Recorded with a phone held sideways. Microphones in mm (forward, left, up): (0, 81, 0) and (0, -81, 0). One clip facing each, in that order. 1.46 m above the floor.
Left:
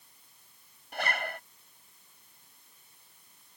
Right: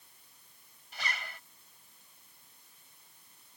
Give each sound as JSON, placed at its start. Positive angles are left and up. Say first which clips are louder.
{"t": 0.9, "sound": "a zipper", "louder": "left 8 dB", "side_deg": 60}